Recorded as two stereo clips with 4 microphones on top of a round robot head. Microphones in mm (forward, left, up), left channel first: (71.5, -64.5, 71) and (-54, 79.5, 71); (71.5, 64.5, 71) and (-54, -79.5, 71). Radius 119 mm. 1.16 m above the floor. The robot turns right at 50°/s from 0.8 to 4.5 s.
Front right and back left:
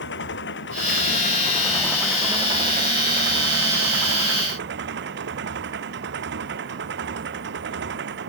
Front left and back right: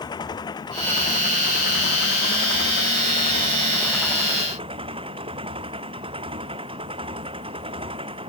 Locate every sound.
0.0 s an engine running: 20° right; by 8.3 s 165° left